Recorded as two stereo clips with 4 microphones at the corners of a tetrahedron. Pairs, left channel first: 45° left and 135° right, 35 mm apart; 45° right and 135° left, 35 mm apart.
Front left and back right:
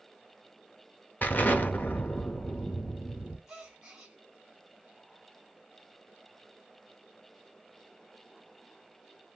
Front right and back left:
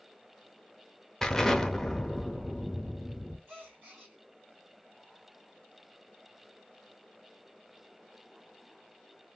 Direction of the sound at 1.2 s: 30° left.